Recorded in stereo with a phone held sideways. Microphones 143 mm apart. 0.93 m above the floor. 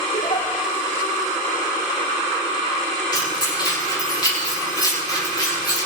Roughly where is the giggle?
Left.